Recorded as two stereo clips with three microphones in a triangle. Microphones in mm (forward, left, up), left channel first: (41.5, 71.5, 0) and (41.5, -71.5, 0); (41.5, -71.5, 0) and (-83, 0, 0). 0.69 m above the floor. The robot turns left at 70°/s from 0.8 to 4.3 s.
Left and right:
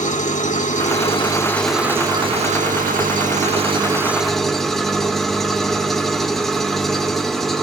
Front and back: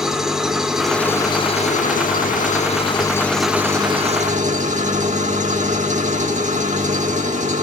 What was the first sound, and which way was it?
An engine running, 65° left.